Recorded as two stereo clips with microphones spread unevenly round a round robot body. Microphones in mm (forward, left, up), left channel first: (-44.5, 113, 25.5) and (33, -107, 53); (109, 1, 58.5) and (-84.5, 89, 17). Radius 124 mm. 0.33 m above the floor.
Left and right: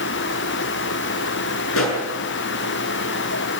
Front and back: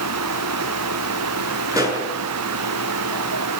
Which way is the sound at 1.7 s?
85° left.